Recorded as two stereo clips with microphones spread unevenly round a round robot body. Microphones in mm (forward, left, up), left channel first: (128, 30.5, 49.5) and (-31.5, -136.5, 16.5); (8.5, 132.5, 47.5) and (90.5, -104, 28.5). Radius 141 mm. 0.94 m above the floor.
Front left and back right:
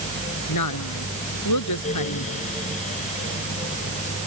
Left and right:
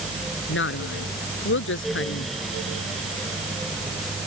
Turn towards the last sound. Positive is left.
turn(degrees=65)